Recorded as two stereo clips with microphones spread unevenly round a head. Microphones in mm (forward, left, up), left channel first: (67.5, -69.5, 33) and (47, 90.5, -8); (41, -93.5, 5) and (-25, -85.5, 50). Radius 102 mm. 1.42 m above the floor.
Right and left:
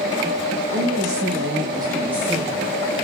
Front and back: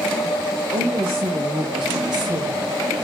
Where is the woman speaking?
145° left, 4 m; by 2.7 s 160° right, 2.5 m.